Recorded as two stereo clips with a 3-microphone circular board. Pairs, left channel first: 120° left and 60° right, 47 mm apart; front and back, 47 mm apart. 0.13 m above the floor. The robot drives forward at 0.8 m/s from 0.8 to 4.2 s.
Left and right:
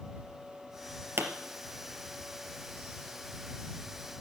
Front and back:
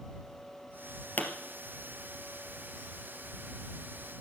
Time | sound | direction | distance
1.2 | a pop | 40° right | 2.5 m